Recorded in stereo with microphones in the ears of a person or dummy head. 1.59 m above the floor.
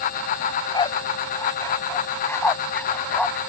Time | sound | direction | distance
0.4 | a dog barking | 30° left (ahead or behind) | ?